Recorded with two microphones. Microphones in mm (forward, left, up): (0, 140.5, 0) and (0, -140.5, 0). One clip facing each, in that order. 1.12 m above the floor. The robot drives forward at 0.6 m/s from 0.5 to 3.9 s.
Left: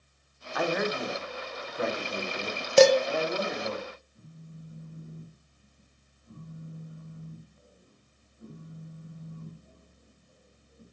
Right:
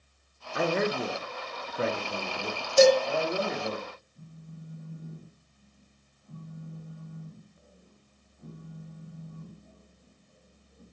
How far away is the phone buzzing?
About 1.5 m.